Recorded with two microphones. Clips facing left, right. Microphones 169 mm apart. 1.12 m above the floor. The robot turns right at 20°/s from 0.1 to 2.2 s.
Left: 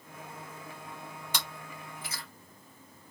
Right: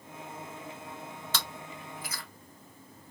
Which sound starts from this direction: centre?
Chewing, at 1.3 s.